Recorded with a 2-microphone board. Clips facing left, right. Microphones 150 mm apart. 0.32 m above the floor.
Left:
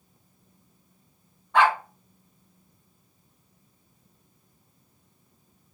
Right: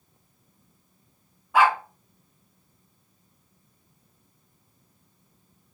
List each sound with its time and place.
1.5 s a dog barking: 5° right (ahead or behind), 1.1 m